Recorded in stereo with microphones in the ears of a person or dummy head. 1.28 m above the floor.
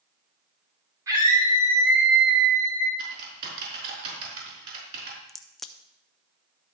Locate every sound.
1.1 s a scream: 20° right (ahead or behind), 3.5 m; by 2.9 s 10° right (ahead or behind), 2 m
3.0 s typing on a keyboard: 50° right (ahead or behind), 5 m
5.3 s a crack: centre (ahead or behind), 0.6 m